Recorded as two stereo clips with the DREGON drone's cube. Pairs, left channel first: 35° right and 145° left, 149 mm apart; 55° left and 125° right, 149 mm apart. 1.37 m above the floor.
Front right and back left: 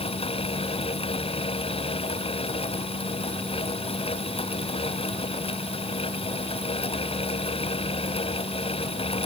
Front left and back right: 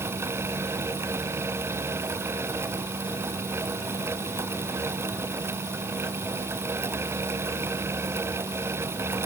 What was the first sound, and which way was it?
Only background noise.